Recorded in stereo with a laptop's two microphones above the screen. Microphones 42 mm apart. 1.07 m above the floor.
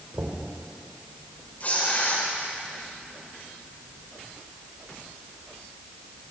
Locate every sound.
0.1 s knocking: 85° right, 3.5 m
1.6 s tearing paper: 45° left (ahead or behind), 5.5 m